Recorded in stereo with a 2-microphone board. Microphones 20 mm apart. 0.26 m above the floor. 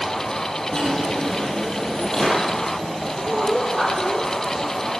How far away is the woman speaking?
About 7.5 m.